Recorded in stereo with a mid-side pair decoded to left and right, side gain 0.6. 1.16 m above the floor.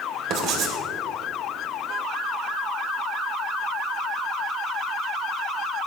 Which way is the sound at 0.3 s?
60° right.